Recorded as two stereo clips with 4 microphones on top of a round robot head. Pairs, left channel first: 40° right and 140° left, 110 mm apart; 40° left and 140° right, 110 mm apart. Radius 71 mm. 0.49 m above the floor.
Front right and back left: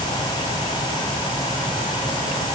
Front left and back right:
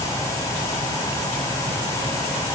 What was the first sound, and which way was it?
Only background noise.